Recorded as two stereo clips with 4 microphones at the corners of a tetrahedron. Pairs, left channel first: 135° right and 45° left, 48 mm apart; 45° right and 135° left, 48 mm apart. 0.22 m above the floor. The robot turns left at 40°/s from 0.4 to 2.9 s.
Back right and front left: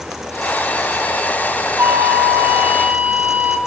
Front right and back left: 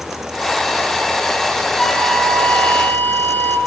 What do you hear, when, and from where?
1.8 s a flute: 35° left, 3 m; by 3.6 s 10° right, 3 m